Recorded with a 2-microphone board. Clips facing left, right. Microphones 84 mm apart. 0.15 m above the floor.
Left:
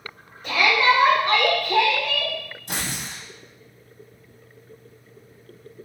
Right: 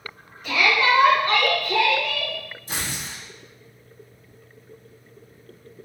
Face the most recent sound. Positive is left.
turn(degrees=65)  # may be behind; listen again after turning